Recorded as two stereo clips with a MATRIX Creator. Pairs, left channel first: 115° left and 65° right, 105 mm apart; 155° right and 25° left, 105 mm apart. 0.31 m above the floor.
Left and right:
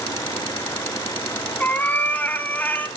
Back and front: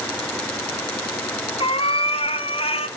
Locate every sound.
1.6 s a cat meowing: 175° right, 1.4 m